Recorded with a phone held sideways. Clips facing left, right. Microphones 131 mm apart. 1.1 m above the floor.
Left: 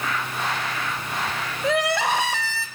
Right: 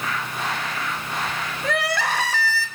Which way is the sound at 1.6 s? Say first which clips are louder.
Left 3 dB; 20° left (ahead or behind).